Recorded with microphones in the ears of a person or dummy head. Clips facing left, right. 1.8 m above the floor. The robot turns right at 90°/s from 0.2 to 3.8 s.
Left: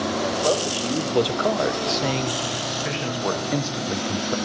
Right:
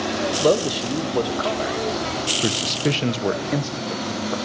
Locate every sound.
0.4 s a man speaking: 50° right, 1.2 m; by 2.3 s 120° left, 1.2 m
2.4 s a man speaking: 105° right, 1.1 m; by 4.3 s 20° left, 1.1 m